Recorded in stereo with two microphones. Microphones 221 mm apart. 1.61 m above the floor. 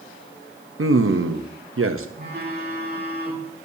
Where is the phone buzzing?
45° right (ahead or behind), 2.5 m.